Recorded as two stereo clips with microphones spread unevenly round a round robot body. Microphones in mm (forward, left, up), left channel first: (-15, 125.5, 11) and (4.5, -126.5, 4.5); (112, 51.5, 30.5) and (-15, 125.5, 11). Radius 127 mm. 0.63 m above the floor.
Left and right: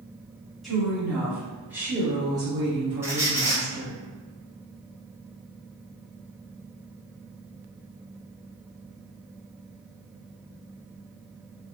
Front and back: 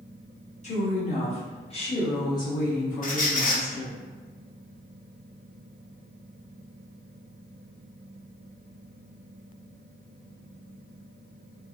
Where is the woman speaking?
5° left, 1.5 m; by 4.0 s 140° right, 1.3 m.